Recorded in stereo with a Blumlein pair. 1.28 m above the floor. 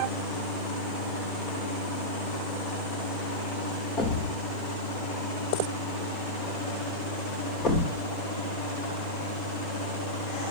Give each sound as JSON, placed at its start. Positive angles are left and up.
{"t": 4.0, "sound": "a thud", "azimuth_deg": 30, "distance_m": 2.0}